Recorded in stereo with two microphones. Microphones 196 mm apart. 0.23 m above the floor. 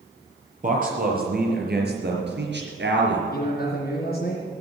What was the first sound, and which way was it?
A man speaking, 45° right (ahead or behind).